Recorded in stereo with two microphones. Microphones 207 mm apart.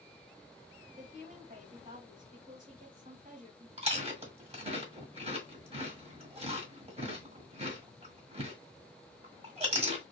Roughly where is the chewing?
Right.